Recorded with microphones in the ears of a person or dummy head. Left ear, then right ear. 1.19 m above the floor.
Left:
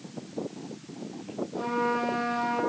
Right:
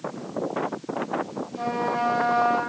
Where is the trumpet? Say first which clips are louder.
Right 2 dB; 20° right (ahead or behind), 3.5 m.